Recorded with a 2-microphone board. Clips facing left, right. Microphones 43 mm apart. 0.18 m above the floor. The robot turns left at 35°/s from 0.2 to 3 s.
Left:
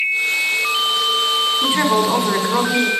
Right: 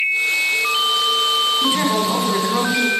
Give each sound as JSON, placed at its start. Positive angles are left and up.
{"t": 1.6, "sound": "a woman speaking", "side_deg": 25, "distance_m": 1.5}